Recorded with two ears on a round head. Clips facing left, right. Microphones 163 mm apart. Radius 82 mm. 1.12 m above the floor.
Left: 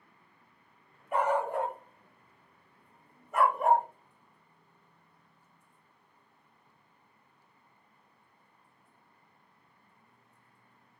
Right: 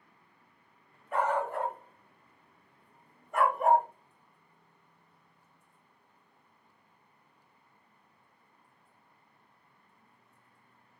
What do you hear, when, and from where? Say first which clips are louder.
1.1 s a dog barking: left 2 dB; 15° left (ahead or behind), 1.3 m; by 3.9 s centre (ahead or behind), 0.9 m